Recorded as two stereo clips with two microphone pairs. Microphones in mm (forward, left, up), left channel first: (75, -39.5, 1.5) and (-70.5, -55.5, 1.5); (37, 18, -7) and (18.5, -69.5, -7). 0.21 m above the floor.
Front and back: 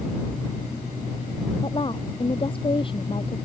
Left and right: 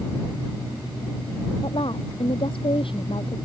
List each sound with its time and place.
1.6 s a woman speaking: 60° left